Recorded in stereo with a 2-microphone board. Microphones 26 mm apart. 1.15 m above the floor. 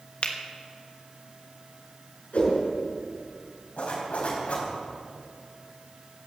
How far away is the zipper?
About 4 m.